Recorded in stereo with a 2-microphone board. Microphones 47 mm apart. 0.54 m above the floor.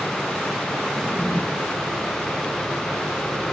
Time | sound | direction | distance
0.9 | a drawer | 10° right (ahead or behind) | 4 m